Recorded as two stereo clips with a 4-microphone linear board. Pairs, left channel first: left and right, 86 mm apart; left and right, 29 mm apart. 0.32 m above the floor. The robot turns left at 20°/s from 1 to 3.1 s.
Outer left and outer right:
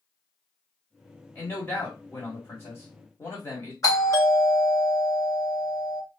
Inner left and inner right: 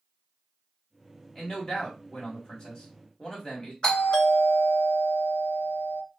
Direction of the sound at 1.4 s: 130° left.